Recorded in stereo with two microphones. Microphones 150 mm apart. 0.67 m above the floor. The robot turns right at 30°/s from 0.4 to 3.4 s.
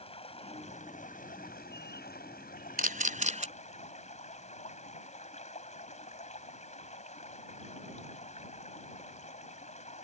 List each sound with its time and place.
0.0 s running water: 40° left; by 10.1 s 130° left
2.8 s a camera shutter: 65° right (ahead or behind); by 3.5 s 50° right (ahead or behind)